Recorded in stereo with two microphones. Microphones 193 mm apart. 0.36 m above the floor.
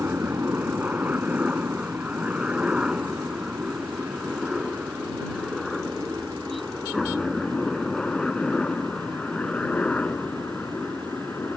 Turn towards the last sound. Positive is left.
turn(degrees=10)  # may be behind; listen again after turning